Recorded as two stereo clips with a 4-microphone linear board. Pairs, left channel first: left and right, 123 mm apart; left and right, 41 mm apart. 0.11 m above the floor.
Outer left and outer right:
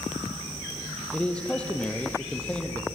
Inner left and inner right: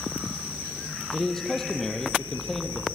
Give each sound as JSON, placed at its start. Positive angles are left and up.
{"t": 1.1, "sound": "a man speaking", "side_deg": 10, "distance_m": 2.5}